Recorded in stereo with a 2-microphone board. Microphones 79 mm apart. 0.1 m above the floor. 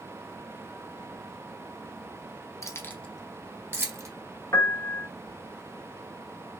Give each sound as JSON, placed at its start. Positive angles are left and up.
{"t": 2.6, "sound": "keys jangling", "side_deg": 40, "distance_m": 1.0}
{"t": 4.5, "sound": "a piano", "side_deg": 40, "distance_m": 0.7}